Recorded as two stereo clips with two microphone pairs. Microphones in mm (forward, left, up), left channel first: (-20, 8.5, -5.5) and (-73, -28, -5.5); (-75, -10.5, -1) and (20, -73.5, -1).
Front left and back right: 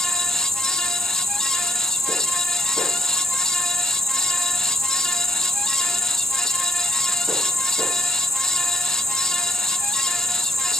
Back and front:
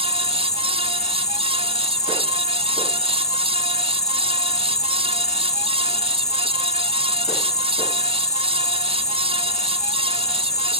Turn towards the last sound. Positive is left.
turn(degrees=170)